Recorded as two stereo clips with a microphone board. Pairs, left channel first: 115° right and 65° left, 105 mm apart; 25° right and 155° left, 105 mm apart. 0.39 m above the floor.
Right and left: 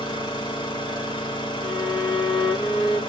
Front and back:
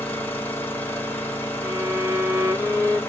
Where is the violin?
130° right, 0.9 m.